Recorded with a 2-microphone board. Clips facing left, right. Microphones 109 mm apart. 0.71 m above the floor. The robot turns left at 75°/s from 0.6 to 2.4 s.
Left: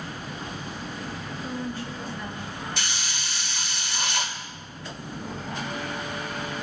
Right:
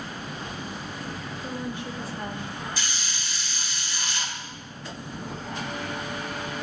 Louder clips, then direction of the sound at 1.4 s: Left 1 dB; straight ahead.